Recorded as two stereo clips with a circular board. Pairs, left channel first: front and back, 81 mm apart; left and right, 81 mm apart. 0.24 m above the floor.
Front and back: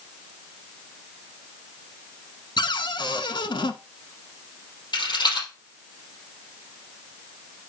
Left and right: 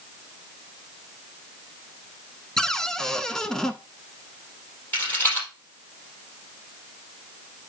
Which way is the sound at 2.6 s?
5° left.